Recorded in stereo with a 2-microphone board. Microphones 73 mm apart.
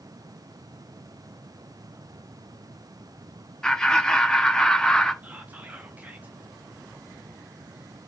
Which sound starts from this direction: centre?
Laughter, at 3.6 s.